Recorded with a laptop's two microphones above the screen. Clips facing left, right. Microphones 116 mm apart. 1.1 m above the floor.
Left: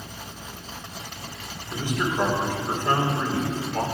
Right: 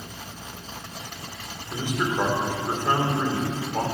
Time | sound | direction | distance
1.7 | a man speaking | 15° right (ahead or behind) | 3 m